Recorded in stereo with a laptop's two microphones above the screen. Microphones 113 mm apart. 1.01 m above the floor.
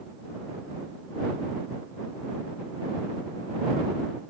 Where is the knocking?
No knocking in this recording.